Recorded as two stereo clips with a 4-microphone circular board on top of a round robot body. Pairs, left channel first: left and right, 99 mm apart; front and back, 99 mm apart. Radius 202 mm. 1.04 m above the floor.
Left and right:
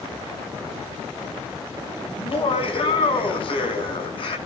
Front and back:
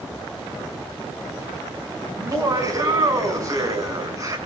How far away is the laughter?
About 6.5 m.